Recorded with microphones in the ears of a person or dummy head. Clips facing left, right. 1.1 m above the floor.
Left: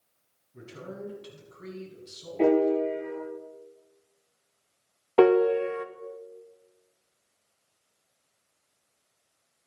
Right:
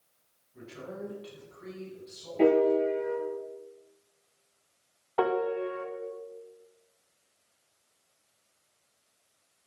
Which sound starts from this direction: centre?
A piano, at 2.4 s.